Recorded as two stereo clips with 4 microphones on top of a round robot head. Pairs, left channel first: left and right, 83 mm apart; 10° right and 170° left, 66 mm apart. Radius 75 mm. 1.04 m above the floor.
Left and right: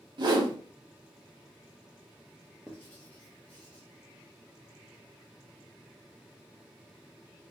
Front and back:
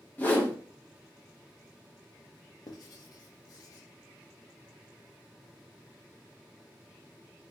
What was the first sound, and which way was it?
A whoosh, 75° right.